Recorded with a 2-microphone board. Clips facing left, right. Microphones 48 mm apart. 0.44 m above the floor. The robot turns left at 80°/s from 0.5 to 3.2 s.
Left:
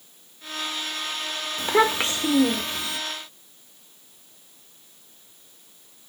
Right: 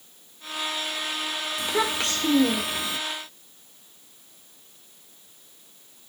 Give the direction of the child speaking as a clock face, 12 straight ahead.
10 o'clock.